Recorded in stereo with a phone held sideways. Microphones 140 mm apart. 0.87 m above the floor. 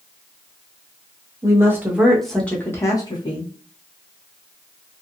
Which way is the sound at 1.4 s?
20° right (ahead or behind).